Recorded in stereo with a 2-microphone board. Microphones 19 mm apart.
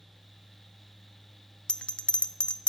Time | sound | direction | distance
1.7 | a bell | 65° left (ahead or behind) | 0.6 m